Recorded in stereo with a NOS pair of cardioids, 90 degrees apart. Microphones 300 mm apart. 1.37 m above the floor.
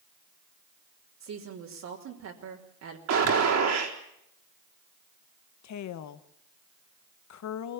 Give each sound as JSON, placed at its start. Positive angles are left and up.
{"t": 1.2, "sound": "a woman speaking", "azimuth_deg": -60, "distance_m": 3.5}
{"t": 3.1, "sound": "a gunshot", "azimuth_deg": -60, "distance_m": 4.0}
{"t": 5.6, "sound": "a woman speaking", "azimuth_deg": 65, "distance_m": 1.4}